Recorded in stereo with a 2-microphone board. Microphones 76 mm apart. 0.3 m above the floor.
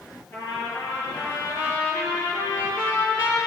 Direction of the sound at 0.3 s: 40° left (ahead or behind).